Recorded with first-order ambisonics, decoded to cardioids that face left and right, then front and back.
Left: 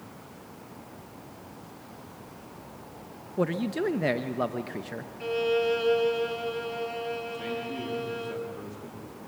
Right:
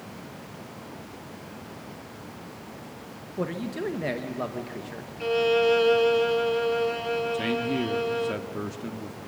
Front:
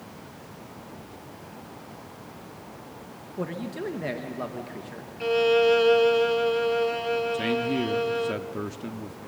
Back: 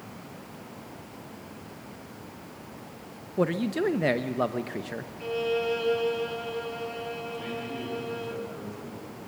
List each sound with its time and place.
3.4 s a man speaking: 150° left, 0.8 m
5.2 s a violin: 30° right, 0.8 m
7.3 s a man speaking: 40° right, 1.5 m